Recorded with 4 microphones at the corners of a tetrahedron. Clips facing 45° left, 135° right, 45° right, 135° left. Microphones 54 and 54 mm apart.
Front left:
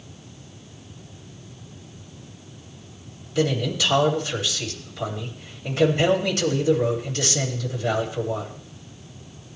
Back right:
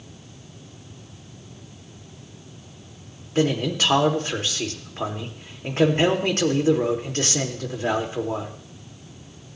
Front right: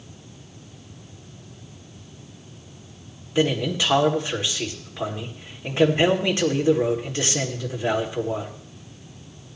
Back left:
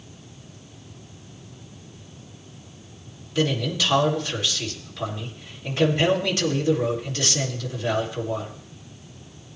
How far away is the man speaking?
About 1.7 m.